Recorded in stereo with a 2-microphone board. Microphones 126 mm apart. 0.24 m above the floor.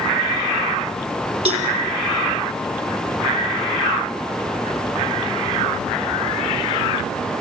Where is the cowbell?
45° right (ahead or behind), 3.5 m.